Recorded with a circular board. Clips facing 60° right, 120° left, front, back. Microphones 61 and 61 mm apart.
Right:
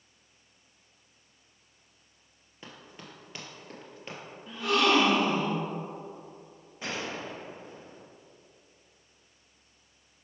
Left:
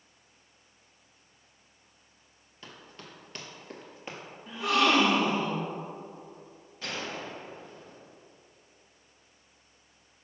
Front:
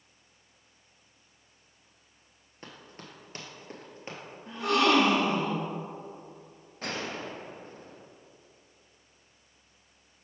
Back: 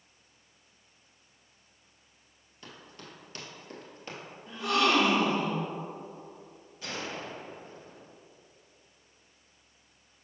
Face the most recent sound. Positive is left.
turn(degrees=5)